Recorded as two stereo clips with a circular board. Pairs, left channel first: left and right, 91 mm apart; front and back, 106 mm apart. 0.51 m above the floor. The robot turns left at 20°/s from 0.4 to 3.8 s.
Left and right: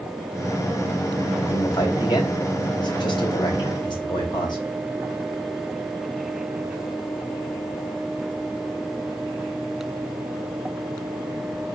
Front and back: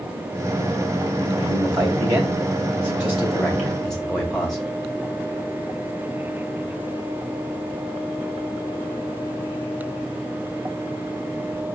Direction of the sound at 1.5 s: 130° left.